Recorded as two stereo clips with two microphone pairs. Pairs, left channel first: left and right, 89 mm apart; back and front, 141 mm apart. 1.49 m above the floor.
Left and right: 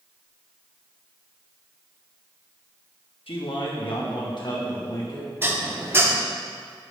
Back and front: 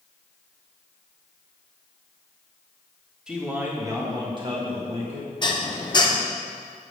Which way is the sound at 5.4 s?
140° right.